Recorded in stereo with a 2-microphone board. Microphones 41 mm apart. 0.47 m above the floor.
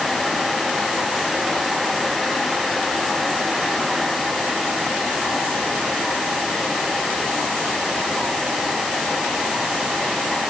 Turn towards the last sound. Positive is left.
No sound to turn to.